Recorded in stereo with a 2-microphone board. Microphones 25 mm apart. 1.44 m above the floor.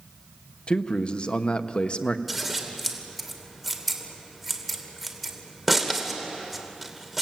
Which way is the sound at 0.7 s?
40° left (ahead or behind).